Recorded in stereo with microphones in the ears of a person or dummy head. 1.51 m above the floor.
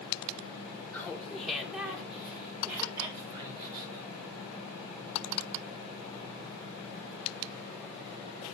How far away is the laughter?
About 1.7 m.